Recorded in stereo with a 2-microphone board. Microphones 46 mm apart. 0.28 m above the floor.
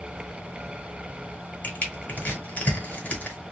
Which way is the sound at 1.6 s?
30° left (ahead or behind).